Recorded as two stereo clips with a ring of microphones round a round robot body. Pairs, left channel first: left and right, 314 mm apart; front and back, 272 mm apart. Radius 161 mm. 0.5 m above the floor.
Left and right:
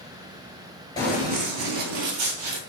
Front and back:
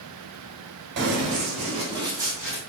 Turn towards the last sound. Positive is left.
turn(degrees=-95)